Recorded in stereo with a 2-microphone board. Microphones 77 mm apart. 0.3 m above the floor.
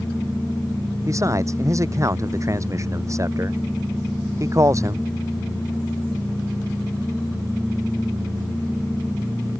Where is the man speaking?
45° right (ahead or behind).